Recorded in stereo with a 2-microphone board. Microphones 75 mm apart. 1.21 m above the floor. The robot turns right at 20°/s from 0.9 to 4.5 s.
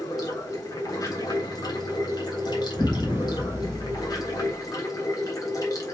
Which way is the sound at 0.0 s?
55° left.